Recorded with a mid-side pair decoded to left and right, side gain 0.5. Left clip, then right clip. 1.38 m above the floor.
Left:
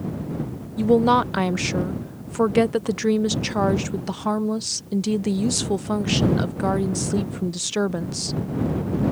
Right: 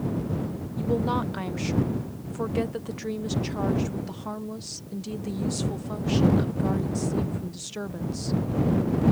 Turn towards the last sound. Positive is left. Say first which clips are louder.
# left 10 dB
turn(degrees=60)